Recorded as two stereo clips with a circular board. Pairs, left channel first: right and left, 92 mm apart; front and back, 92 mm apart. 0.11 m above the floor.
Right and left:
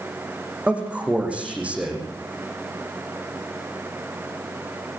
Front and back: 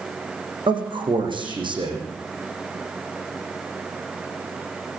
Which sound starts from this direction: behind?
A man speaking, at 0.7 s.